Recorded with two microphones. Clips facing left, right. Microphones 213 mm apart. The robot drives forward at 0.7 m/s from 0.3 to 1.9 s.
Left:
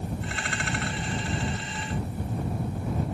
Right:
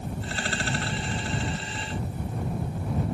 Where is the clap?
No clap in this recording.